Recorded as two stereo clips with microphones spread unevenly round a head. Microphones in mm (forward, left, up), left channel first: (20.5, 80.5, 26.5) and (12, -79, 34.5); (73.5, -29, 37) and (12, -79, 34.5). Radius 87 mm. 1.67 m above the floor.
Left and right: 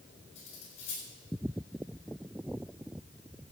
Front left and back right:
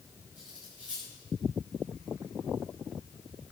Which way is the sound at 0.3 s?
140° left.